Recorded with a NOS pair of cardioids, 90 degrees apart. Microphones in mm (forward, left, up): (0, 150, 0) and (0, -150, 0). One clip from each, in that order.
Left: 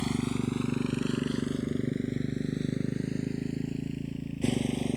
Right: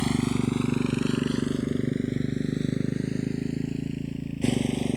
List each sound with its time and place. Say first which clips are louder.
0.0 s a motorcycle: right 5 dB; 30° right; by 5.0 s 20° right